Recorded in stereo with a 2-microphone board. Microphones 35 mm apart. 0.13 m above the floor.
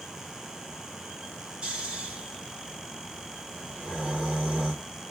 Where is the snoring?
25° right (ahead or behind), 1.5 m.